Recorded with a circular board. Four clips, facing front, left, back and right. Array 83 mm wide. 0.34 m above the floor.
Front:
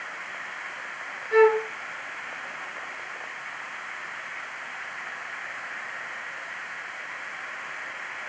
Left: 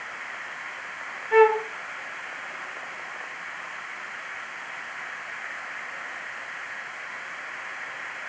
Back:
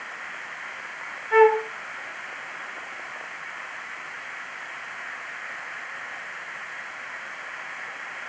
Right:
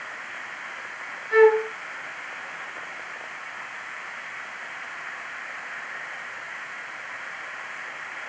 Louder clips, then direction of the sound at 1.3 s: Right 1 dB, back 2 dB; 140° left.